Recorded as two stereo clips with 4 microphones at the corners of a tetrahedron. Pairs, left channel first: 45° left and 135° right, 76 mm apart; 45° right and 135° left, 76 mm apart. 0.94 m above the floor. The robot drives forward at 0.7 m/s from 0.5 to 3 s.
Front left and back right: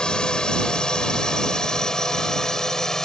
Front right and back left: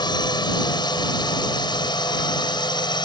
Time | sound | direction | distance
0.0 | a drone | 35° right | ?